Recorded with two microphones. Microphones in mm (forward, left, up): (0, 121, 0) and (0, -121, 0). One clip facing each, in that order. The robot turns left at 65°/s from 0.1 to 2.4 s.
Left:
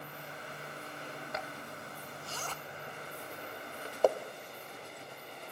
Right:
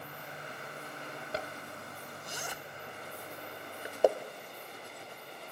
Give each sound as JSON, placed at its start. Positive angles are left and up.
{"t": 1.3, "sound": "a zipper", "side_deg": -35, "distance_m": 0.9}